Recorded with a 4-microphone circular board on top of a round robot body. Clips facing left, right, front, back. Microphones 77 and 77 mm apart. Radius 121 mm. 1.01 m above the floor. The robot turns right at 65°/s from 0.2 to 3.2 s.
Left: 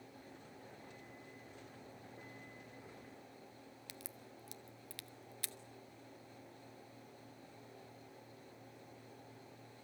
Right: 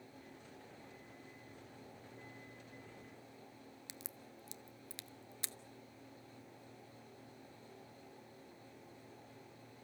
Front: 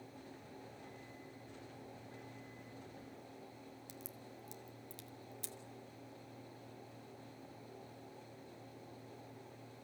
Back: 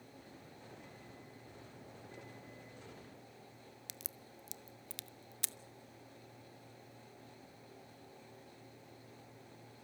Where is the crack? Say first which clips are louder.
Even, front 3 dB; 160° right, 0.6 m.